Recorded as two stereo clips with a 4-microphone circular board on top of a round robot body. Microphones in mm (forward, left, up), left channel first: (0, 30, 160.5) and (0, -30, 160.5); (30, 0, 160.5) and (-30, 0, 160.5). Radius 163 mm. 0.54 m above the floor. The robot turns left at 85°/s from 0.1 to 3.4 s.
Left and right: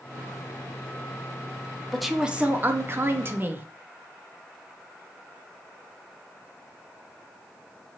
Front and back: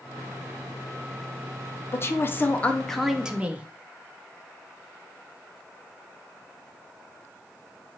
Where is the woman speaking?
5° left, 0.7 m; by 3.7 s 120° right, 0.7 m.